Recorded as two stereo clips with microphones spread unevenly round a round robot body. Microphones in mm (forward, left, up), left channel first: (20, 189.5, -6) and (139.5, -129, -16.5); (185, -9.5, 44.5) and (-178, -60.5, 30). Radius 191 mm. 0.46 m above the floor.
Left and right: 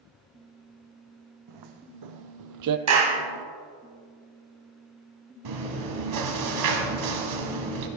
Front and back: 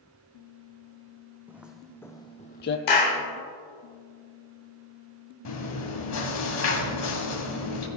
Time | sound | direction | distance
1.5 | footsteps | 85° right | 1.0 m
2.9 | a clap | 25° right | 2 m
5.5 | chewing | 40° right | 1.8 m